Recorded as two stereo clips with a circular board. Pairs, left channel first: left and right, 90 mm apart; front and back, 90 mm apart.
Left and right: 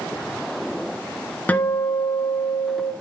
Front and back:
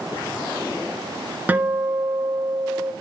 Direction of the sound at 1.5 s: 140° left.